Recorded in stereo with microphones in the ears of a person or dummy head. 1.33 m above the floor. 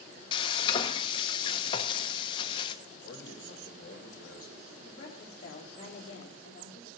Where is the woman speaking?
35° left (ahead or behind), 3 m.